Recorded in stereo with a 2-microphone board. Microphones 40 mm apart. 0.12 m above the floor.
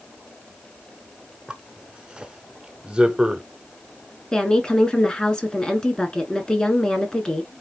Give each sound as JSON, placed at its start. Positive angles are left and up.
{"t": 1.5, "sound": "a zipper", "side_deg": -20, "distance_m": 0.7}
{"t": 4.3, "sound": "a woman speaking", "side_deg": 20, "distance_m": 1.1}